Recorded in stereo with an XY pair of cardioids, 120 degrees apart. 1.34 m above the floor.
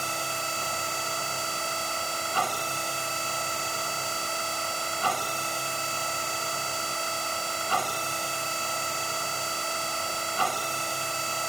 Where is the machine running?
20° right.